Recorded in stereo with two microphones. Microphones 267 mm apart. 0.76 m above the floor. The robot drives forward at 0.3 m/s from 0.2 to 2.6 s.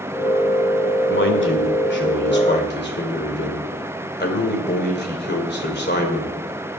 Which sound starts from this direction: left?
A man speaking, at 1.1 s.